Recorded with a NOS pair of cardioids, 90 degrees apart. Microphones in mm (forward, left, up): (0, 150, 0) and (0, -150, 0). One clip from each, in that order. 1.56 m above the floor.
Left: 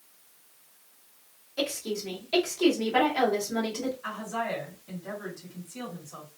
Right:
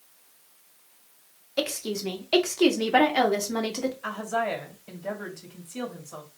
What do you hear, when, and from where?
1.6 s a woman speaking: 50° right, 1.7 m
4.0 s a woman speaking: 40° right, 2.0 m